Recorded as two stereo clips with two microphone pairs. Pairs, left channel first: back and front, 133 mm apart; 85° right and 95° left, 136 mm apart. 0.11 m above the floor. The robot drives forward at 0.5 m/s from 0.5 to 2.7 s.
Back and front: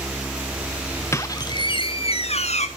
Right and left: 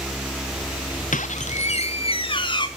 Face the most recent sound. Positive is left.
turn(degrees=-145)